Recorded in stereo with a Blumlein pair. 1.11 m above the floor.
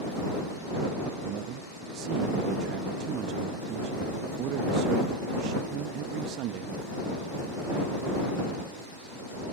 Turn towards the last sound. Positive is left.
turn(degrees=-40)